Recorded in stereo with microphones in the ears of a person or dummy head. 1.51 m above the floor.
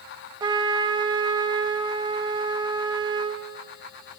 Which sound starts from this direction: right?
A trumpet, at 0.4 s.